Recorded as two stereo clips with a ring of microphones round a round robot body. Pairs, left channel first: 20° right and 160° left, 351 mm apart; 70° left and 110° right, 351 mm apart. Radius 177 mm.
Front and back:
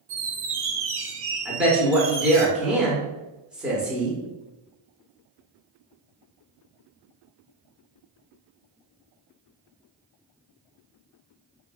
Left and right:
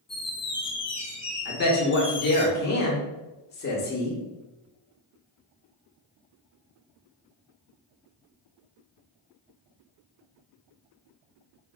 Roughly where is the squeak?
Behind left.